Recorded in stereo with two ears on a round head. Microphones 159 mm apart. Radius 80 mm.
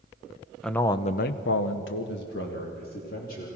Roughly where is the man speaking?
Centre.